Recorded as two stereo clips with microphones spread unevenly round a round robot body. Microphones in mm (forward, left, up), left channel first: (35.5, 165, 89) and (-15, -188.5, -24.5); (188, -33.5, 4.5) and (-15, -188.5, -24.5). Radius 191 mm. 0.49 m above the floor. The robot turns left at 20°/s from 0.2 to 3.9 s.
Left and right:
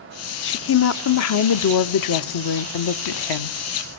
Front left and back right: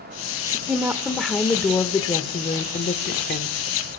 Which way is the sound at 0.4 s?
150° left.